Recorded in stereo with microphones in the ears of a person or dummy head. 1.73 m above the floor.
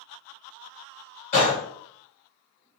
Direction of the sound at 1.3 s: 45° left (ahead or behind).